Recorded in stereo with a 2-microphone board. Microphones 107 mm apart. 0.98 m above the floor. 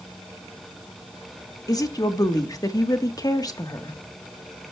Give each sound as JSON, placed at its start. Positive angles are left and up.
{"t": 1.7, "sound": "a woman speaking", "side_deg": 35, "distance_m": 1.4}